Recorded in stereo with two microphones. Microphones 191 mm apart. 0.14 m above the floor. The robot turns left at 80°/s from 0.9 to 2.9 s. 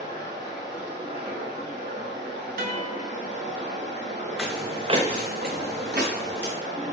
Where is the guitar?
50° right (ahead or behind), 0.5 m.